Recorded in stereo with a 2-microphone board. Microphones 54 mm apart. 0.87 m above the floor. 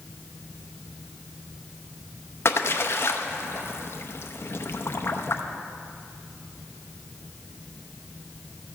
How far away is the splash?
About 0.7 m.